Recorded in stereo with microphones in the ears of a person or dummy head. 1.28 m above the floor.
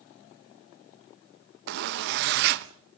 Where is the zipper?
55° right (ahead or behind), 0.6 m.